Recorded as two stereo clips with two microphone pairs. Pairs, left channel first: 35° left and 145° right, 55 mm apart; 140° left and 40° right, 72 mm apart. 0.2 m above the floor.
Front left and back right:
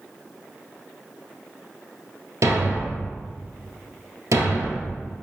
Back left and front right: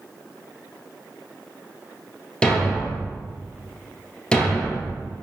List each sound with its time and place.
2.4 s a thud: 145° right, 1.6 m